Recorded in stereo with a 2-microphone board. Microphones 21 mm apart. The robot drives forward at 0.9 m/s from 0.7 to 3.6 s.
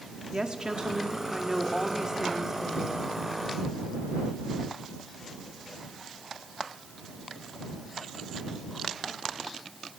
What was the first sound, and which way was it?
A woman speaking, 45° right (ahead or behind).